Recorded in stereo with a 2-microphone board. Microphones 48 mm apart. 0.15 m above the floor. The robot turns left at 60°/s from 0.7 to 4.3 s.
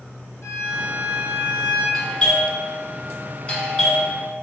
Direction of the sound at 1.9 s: Centre (ahead or behind).